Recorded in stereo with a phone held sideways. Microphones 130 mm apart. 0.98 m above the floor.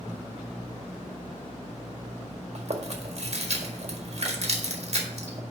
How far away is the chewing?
About 1.6 m.